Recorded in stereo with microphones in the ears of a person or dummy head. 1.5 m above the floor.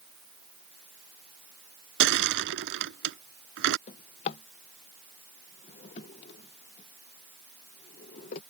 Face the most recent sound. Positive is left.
turn(degrees=30)  # may be behind; listen again after turning